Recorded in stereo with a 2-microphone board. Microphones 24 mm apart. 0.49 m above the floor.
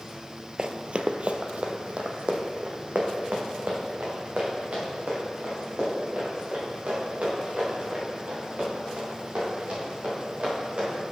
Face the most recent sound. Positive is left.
turn(degrees=-55)  # may be behind; listen again after turning